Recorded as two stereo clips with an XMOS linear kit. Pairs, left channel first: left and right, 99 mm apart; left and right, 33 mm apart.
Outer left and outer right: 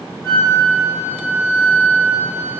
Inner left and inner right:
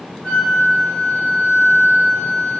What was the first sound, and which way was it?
A flute, 35° left (ahead or behind).